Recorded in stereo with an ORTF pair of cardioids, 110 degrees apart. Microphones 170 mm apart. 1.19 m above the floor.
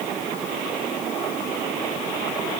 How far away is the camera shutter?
I don't hear a camera shutter.